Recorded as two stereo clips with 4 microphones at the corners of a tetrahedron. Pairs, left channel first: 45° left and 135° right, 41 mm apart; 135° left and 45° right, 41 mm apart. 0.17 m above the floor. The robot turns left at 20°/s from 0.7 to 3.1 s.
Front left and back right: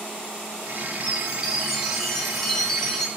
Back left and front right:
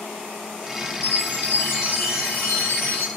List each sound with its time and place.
1.0 s a chime: 155° left, 0.6 m; by 3.1 s 115° left, 0.6 m